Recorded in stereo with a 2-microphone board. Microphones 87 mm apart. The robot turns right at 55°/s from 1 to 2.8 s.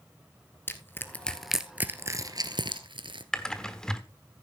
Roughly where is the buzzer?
No buzzer in this recording.